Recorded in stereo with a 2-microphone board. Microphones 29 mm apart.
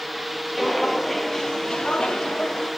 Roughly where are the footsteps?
Centre.